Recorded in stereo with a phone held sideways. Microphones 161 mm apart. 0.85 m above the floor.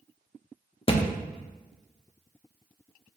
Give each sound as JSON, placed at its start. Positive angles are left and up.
{"t": 0.9, "sound": "a thud", "side_deg": 35, "distance_m": 0.5}